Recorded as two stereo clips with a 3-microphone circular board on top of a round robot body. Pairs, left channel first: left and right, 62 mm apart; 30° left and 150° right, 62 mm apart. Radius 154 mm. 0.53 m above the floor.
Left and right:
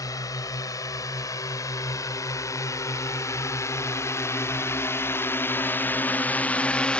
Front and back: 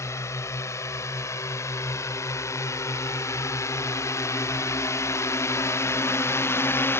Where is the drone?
70° left; by 7.0 s 25° left.